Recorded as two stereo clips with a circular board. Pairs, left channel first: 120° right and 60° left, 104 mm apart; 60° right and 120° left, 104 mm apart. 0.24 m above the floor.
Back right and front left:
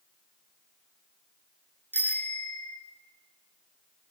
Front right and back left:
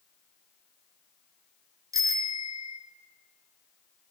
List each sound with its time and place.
1.9 s a bicycle bell: 170° left, 2 m